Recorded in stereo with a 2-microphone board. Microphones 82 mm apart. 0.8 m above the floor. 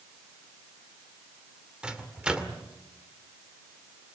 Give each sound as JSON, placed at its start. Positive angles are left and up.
{"t": 1.8, "sound": "a microwave", "side_deg": -10, "distance_m": 2.0}